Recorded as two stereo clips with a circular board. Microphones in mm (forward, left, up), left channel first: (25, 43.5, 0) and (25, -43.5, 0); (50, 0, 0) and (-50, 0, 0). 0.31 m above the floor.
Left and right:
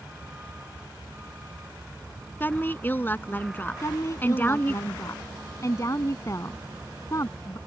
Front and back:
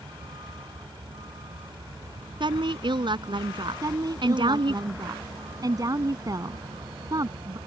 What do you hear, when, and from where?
0.0 s a vehicle: 160° right; by 7.7 s 155° right
2.4 s a woman speaking: 155° left
3.8 s a woman speaking: 135° left